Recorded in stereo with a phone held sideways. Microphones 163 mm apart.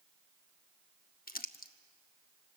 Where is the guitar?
No guitar in this recording.